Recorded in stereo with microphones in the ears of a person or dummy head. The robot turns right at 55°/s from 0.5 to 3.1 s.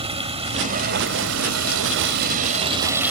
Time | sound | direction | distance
0.0 | running water | 150° right | ?